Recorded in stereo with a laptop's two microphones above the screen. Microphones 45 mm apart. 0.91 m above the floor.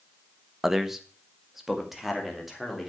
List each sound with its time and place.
0.6 s a man speaking: 10° right (ahead or behind), 0.9 m; by 2.9 s 5° right (ahead or behind), 3.5 m